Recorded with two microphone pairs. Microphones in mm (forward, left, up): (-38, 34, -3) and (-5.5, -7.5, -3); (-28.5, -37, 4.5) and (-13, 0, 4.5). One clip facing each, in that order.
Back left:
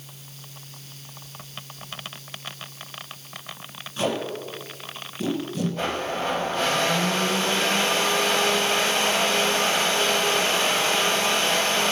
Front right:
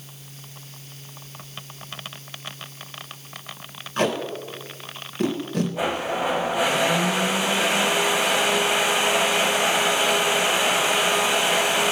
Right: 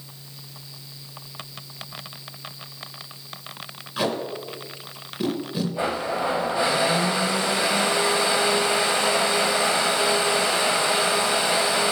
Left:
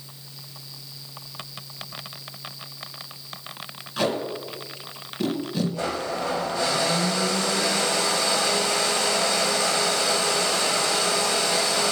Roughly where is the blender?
Right.